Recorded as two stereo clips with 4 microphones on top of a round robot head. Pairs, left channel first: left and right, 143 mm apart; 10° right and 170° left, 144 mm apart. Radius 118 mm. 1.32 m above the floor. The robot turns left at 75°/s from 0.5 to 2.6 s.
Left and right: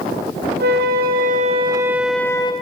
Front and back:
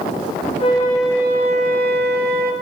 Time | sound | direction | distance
0.6 | a flute | 70° right | 0.8 m